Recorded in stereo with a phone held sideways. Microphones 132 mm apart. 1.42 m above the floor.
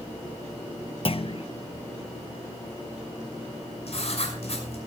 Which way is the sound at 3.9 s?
55° left (ahead or behind).